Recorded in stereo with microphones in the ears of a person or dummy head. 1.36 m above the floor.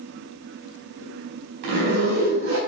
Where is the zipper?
70° right (ahead or behind), 5 m.